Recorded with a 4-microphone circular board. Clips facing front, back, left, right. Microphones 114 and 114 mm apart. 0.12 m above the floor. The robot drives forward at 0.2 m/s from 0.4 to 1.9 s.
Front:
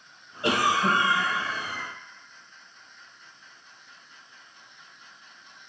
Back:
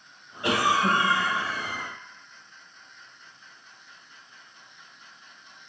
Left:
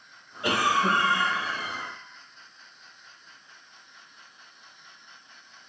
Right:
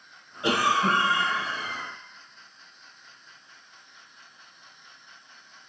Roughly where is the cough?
Ahead right.